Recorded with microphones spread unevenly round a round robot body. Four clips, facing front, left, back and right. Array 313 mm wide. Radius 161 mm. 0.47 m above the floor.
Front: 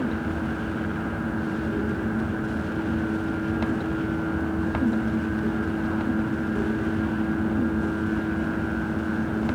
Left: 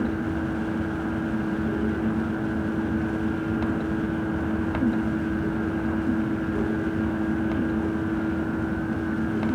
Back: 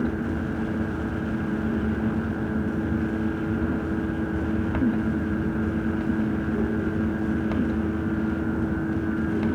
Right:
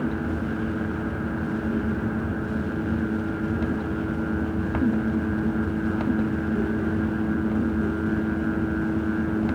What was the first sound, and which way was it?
Only background noise.